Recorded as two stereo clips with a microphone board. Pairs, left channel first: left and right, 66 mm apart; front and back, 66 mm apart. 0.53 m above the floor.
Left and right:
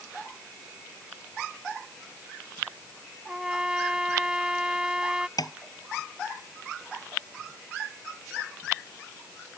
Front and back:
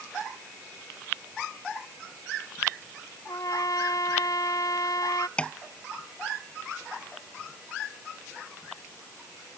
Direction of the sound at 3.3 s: 10° right.